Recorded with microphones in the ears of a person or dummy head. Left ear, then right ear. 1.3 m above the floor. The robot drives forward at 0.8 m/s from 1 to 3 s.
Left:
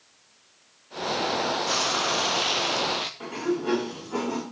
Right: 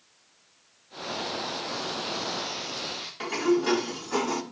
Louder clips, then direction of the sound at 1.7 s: Left 7 dB; 75° left (ahead or behind).